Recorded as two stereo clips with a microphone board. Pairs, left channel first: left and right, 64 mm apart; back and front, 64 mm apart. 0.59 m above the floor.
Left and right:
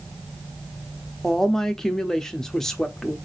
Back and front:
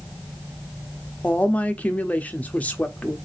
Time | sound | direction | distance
1.2 | a woman speaking | 165° left | 0.6 m